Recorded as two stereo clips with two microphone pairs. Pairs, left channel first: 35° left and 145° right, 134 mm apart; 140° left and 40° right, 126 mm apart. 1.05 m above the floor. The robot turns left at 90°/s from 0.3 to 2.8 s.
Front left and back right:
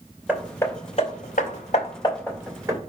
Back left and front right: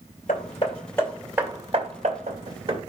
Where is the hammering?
135° left, 1.7 m; by 2.8 s 90° right, 1.7 m.